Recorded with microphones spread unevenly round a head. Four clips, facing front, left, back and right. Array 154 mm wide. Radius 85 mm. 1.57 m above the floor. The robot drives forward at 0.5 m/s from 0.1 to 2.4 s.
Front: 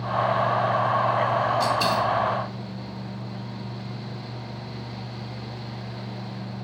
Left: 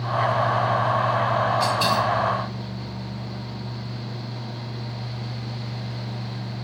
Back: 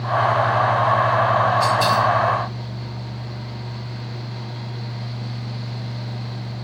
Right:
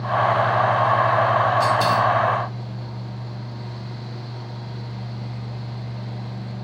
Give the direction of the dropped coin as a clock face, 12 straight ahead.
1 o'clock.